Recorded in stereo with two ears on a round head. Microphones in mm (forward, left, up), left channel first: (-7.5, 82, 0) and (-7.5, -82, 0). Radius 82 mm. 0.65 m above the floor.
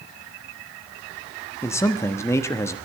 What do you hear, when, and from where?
1.6 s a man speaking: 15° left (ahead or behind), 1.1 m